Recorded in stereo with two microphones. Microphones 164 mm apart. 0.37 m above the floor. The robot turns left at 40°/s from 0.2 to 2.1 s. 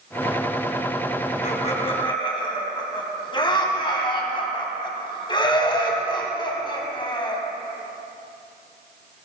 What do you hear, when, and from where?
1.4 s laughter: 50° left (ahead or behind), 2.5 m; by 7.4 s 30° left (ahead or behind), 2.5 m